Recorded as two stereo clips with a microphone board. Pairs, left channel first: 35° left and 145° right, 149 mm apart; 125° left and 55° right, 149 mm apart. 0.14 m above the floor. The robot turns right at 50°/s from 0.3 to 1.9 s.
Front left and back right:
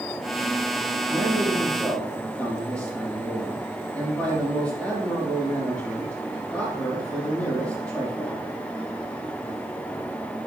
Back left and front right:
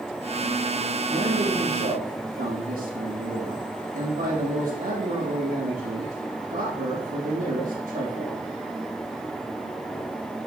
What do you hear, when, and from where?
1.1 s a man speaking: 90° right, 5 m; by 8.4 s 45° right, 5 m